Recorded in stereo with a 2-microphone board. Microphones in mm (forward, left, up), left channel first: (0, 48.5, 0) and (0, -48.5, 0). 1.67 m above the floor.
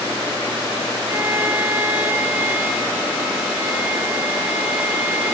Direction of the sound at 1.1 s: 20° right (ahead or behind).